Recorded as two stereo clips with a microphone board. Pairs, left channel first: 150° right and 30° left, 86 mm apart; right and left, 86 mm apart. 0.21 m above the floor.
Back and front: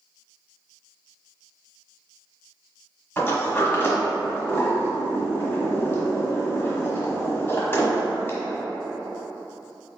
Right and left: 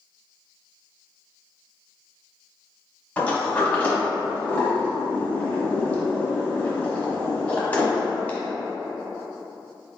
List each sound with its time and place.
3.2 s a sliding door: 135° right, 1.1 m